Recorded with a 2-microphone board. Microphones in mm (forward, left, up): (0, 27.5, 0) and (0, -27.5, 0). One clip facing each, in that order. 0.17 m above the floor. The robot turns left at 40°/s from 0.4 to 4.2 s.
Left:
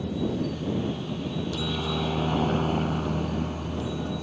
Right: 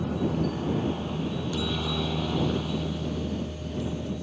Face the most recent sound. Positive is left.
turn(degrees=70)  # may be behind; listen again after turning